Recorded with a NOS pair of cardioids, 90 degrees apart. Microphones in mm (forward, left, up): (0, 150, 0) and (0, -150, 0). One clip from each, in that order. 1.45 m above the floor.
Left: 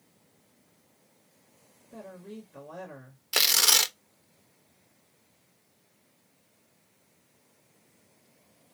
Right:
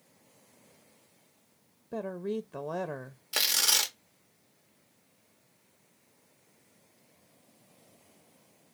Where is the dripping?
I don't hear dripping.